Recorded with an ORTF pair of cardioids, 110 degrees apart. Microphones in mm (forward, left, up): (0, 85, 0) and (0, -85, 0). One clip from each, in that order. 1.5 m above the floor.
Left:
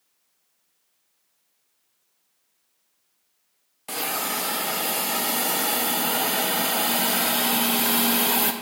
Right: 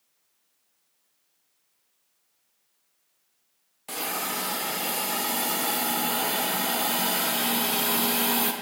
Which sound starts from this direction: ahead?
A hiss, at 3.9 s.